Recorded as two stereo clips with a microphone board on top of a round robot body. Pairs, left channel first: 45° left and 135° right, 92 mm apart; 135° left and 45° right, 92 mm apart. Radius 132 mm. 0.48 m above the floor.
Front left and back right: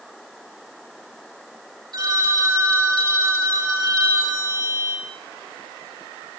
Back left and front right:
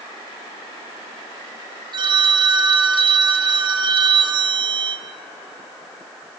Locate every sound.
1.9 s a phone ringing: 90° right, 7.5 m